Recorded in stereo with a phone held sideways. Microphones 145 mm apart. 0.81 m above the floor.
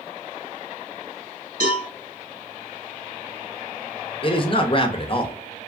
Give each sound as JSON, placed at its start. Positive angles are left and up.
{"t": 1.6, "sound": "a cowbell", "side_deg": -75, "distance_m": 1.9}
{"t": 4.2, "sound": "a man speaking", "side_deg": 35, "distance_m": 0.6}